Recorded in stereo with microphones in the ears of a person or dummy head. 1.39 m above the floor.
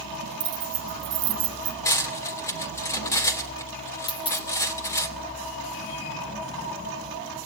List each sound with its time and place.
0.4 s keys jangling: 55° right (ahead or behind), 0.8 m; by 1.8 s 60° right (ahead or behind), 1.4 m
1.9 s cutlery clinking: 15° left (ahead or behind), 2.5 m
4.1 s a dropped coin: 25° left (ahead or behind), 2 m